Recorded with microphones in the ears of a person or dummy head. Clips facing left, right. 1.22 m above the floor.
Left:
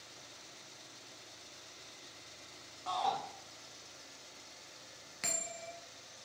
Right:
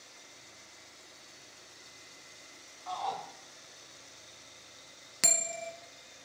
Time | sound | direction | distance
2.9 | a shout | 50° left (ahead or behind) | 2 m
5.2 | a bell | 60° right (ahead or behind) | 1.0 m